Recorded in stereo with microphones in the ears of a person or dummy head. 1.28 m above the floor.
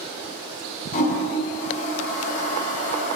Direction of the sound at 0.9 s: 50° left (ahead or behind).